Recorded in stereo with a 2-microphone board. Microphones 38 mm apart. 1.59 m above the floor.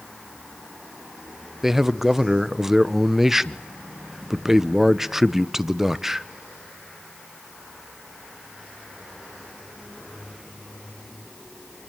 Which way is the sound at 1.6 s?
10° right (ahead or behind).